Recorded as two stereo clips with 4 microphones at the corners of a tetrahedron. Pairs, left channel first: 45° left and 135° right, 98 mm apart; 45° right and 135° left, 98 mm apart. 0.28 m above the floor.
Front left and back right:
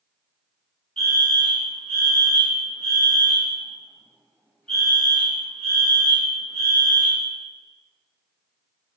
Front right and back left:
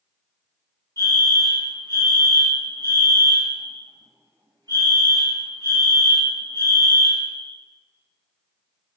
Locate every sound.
1.0 s a fire alarm: 125° left, 3.5 m